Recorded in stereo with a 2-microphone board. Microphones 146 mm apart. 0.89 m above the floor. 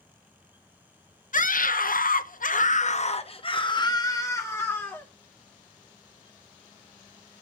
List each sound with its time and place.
1.3 s a scream: 65° left (ahead or behind), 1.0 m; by 5.1 s 15° left (ahead or behind), 1.6 m